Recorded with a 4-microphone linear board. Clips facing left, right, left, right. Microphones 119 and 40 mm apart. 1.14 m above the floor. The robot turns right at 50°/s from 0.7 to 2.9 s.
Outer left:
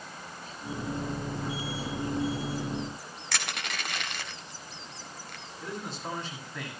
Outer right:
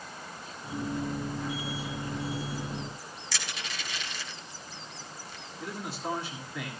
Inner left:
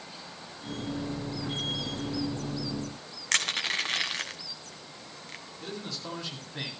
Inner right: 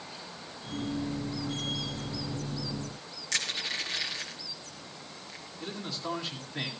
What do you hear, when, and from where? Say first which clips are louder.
3.3 s crushing: outer left 4 dB, inner left 5 dB; 55° left (ahead or behind), 1.8 m
5.6 s a man speaking: outer right 1 dB, inner right 2 dB; 5° right (ahead or behind), 7 m